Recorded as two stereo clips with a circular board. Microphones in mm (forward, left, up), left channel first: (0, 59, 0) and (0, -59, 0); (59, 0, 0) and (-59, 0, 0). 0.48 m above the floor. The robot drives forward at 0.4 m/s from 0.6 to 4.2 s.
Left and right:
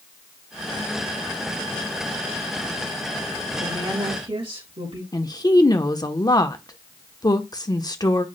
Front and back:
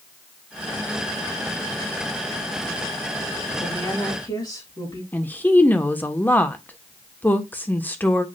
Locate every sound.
3.6 s a woman speaking: 50° right, 4.5 m
5.1 s a woman speaking: 65° left, 1.1 m